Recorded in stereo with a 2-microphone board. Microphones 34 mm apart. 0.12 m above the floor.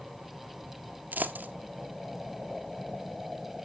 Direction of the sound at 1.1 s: 60° right (ahead or behind).